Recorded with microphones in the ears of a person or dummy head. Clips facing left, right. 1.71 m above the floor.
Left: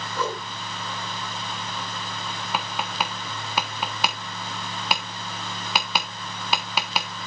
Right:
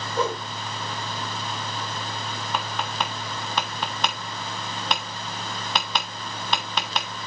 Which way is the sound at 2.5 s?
10° left (ahead or behind).